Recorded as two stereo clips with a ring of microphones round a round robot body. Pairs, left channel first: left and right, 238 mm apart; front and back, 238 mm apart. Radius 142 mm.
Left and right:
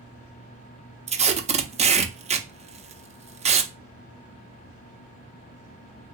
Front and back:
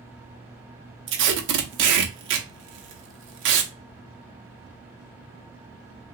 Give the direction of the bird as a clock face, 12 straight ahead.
No bird in this recording.